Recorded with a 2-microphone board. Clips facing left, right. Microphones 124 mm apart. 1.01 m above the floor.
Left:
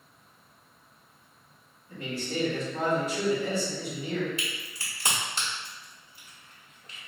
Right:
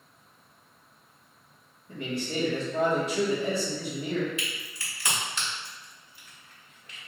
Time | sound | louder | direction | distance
1.9 | a man speaking | right 2 dB | 65° right (ahead or behind) | 1.8 m
4.4 | a crack | even | 35° left (ahead or behind) | 1.4 m